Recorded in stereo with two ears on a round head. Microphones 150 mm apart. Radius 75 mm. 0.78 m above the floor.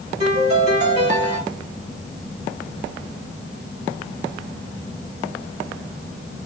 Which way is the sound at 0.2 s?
40° right (ahead or behind).